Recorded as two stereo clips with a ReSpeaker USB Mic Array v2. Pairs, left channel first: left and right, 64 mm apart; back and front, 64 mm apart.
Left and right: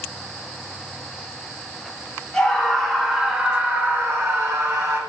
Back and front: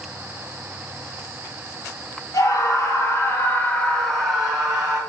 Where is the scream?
170° left, 1.7 m; by 5.0 s 65° right, 1.6 m.